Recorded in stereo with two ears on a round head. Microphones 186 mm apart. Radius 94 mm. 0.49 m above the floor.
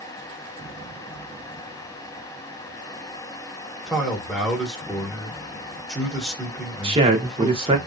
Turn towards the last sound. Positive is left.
turn(degrees=-25)  # may be behind; listen again after turning